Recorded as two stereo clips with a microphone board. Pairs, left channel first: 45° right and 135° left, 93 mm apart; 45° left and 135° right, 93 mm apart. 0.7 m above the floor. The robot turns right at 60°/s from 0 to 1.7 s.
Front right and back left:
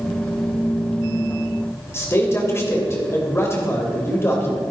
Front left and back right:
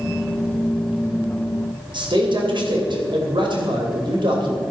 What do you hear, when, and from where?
1.9 s a man speaking: 105° right, 3 m